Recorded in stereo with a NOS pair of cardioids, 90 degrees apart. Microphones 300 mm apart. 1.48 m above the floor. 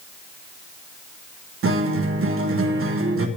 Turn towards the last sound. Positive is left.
turn(degrees=-45)